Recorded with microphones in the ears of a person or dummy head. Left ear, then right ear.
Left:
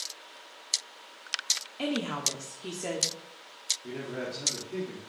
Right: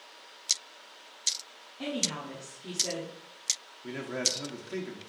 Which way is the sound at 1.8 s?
70° left (ahead or behind).